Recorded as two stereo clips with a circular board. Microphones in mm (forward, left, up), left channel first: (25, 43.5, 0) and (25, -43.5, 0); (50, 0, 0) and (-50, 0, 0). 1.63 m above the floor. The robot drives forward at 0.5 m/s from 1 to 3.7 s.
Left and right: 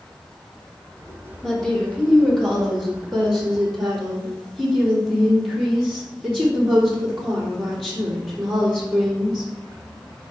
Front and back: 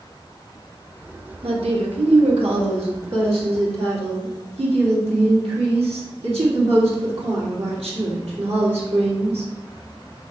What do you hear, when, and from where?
1.4 s a woman speaking: 170° left, 1.6 m; by 9.5 s 175° left, 2.5 m